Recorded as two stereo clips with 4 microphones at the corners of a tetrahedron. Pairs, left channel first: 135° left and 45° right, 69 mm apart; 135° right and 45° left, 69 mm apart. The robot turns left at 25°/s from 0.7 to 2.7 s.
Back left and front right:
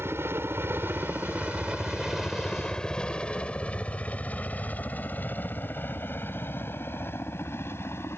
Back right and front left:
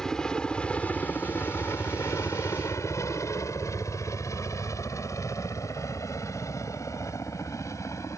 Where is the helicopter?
60° right; by 8.2 s 175° right.